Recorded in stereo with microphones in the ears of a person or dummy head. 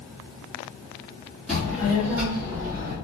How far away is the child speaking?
About 1.4 m.